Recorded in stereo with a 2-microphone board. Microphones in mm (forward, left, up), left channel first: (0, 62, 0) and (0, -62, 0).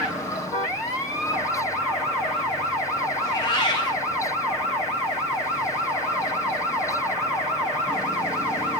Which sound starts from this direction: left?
A cat meowing, at 3.2 s.